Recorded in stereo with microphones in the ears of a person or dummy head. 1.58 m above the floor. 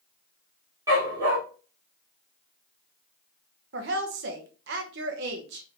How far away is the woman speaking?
About 0.9 m.